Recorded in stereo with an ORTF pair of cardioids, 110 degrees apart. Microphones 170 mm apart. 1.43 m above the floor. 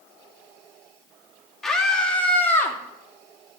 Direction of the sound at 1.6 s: Straight ahead.